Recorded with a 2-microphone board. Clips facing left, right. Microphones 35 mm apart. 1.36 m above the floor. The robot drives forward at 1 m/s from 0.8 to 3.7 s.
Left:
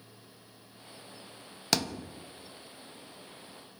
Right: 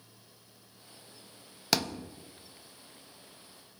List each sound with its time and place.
1.7 s a thud: centre (ahead or behind), 0.7 m